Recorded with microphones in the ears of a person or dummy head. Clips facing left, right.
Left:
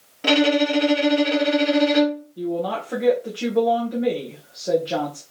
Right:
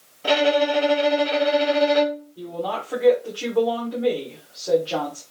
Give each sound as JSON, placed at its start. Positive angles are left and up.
{"t": 0.2, "sound": "a violin", "side_deg": 70, "distance_m": 0.8}
{"t": 2.4, "sound": "a woman speaking", "side_deg": 25, "distance_m": 0.9}